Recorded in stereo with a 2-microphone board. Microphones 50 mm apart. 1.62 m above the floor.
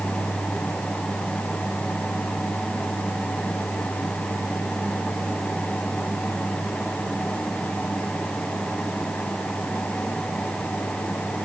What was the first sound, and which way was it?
Only background noise.